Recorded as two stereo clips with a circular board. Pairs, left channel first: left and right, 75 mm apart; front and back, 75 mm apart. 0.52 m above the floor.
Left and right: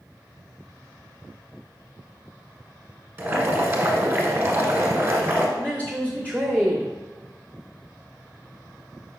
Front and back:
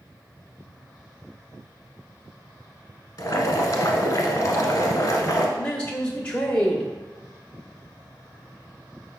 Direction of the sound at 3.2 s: 35° right.